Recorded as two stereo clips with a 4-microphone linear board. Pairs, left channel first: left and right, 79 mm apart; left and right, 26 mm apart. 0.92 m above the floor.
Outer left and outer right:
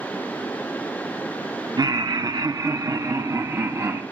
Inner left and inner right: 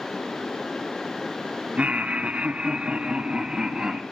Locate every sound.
1.8 s laughter: 55° right (ahead or behind), 0.9 m; by 4.0 s 35° right (ahead or behind), 1.5 m